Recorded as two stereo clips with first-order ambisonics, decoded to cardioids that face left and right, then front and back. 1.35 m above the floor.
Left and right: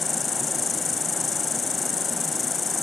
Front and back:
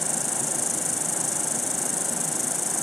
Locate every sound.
0.0 s an insect: 70° left, 1.1 m